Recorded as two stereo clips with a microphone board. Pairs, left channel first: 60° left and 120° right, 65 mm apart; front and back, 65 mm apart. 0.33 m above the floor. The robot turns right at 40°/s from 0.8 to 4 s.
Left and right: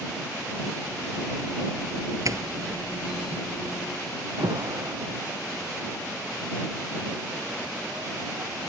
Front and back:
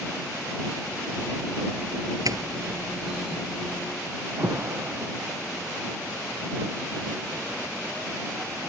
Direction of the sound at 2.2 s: 155° right.